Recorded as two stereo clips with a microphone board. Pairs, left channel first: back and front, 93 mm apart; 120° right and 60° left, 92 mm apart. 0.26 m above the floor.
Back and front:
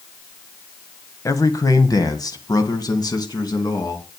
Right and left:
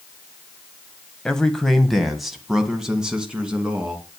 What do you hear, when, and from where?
1.2 s a man speaking: 165° left, 1.3 m; by 4.0 s 140° left, 2.5 m